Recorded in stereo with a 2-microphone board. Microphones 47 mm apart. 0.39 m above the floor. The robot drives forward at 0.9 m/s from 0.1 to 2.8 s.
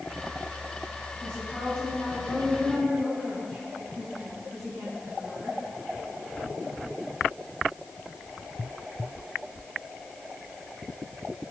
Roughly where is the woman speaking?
Left.